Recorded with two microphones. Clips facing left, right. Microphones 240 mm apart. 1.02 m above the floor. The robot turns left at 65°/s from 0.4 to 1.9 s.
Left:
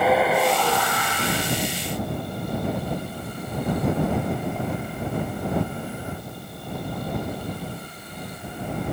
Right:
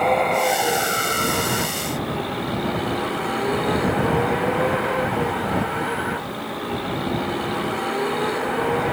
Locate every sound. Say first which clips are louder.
0.0 s a vehicle: even; 5° left; by 8.9 s 95° right